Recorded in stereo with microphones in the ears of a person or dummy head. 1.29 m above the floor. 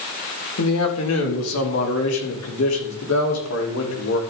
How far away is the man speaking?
About 2.5 m.